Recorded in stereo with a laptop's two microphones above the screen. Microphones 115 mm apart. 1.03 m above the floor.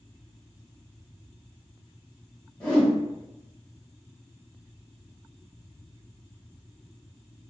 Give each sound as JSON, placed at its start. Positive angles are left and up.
{"t": 2.6, "sound": "a whoosh", "side_deg": 10, "distance_m": 0.9}